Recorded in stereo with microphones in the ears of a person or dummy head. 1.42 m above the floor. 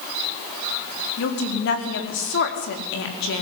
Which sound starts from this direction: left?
A woman speaking, at 1.2 s.